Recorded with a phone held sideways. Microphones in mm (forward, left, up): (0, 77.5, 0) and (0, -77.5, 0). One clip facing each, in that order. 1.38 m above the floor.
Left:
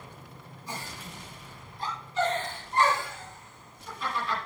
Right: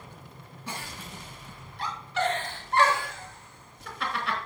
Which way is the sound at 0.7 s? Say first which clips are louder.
Right 1 dB; 80° right.